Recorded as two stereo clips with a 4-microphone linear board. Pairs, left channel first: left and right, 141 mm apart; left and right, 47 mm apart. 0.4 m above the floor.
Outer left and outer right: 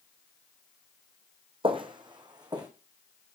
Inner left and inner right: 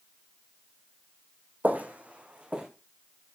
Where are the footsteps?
35° right (ahead or behind), 1.1 m; by 2.7 s 30° right (ahead or behind), 2 m.